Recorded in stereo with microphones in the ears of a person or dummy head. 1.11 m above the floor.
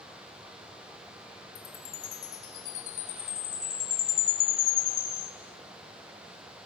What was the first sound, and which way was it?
A chime, 85° left.